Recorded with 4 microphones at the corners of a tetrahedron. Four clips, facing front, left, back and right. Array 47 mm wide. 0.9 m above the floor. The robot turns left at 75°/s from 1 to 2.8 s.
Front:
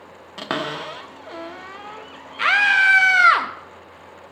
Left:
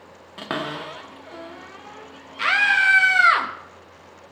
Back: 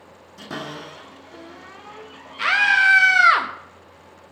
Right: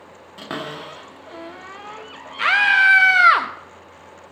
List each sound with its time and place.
0.4 s a cupboard door: 20° left, 1.1 m; by 2.9 s 115° right, 1.1 m
2.4 s a scream: 45° right, 0.8 m; by 3.5 s 75° right, 0.8 m